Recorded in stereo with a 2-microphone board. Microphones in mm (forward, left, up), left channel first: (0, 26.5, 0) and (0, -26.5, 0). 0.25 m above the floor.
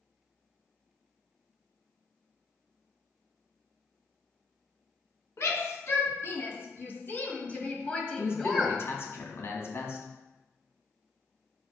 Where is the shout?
55° left (ahead or behind), 3 m; by 8.8 s centre (ahead or behind), 1.7 m.